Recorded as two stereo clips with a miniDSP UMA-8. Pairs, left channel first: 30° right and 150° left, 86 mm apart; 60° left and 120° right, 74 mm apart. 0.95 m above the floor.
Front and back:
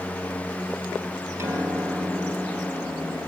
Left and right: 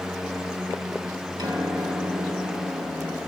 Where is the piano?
155° right, 5 m.